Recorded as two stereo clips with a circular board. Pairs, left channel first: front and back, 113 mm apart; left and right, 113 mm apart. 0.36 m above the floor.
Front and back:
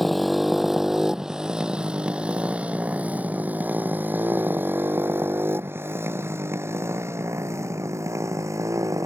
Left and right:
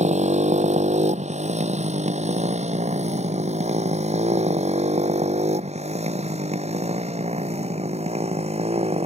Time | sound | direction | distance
0.0 | a motorcycle | 90° right | ?